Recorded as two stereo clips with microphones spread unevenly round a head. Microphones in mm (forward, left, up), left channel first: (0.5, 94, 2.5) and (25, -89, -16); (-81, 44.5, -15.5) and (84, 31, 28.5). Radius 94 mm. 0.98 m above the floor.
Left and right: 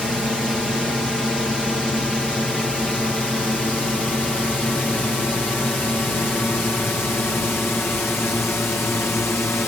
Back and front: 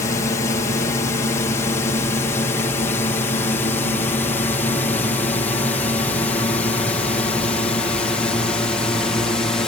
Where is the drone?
170° right; by 9.7 s 165° left.